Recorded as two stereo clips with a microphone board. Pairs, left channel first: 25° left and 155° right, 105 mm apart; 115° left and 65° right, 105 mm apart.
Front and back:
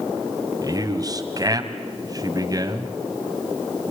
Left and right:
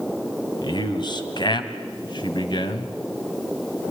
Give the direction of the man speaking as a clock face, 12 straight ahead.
7 o'clock.